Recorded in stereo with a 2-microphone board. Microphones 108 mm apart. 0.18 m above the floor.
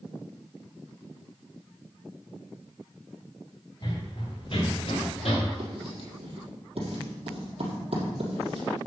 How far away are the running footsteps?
About 3.5 m.